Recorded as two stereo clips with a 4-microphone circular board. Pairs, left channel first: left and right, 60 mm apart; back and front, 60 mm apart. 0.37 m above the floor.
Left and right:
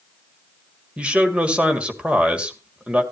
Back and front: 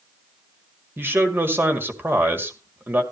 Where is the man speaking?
30° right, 1.8 m.